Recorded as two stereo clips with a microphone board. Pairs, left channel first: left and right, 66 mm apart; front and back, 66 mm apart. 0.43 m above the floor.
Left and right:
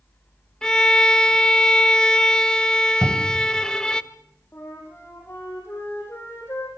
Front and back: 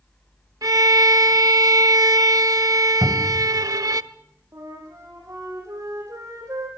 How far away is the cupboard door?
About 2.5 m.